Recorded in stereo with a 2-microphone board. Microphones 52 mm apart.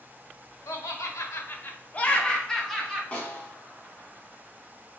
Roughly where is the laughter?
Left.